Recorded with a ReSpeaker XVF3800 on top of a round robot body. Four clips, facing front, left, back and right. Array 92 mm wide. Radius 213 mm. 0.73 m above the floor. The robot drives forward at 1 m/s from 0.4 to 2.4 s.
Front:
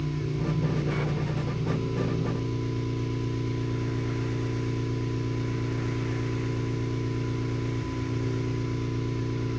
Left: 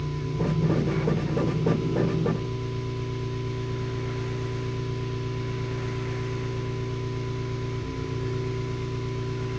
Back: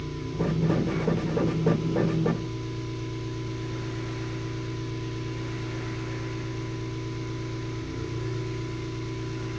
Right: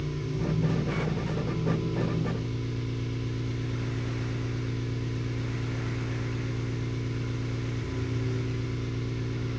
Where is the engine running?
45° left, 5.5 m; by 9.6 s 60° left, 4.5 m.